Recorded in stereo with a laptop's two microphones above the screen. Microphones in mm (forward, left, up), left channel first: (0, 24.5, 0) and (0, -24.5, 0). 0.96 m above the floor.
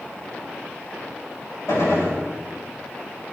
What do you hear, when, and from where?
1.7 s a gunshot: 70° left (ahead or behind), 5 m